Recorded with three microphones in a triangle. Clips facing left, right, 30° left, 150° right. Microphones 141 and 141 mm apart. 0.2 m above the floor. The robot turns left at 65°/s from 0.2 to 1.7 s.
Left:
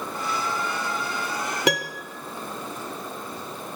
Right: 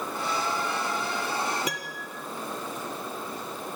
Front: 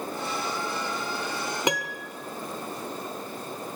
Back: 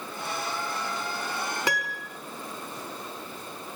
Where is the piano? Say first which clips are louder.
Left 10 dB, front 3 dB; 100° left, 1.6 m.